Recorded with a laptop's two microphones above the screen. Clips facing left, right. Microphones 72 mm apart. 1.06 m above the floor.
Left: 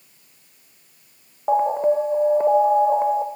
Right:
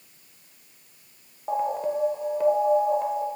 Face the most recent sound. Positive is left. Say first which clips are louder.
# left 8 dB
turn(degrees=30)  # may be behind; listen again after turning